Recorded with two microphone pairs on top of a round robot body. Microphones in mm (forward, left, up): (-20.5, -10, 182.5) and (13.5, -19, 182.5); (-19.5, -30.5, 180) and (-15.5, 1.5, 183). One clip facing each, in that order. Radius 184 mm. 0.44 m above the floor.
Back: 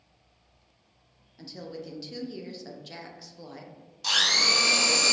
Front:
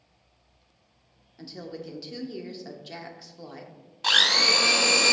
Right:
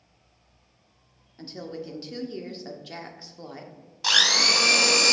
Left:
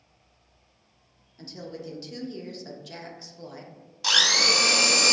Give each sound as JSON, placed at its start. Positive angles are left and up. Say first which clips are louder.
{"t": 1.4, "sound": "a woman speaking", "louder": "front 1 dB, right 2 dB", "azimuth_deg": -90, "distance_m": 0.8}
{"t": 4.0, "sound": "a blender", "louder": "front 3 dB, right 1 dB", "azimuth_deg": -30, "distance_m": 1.0}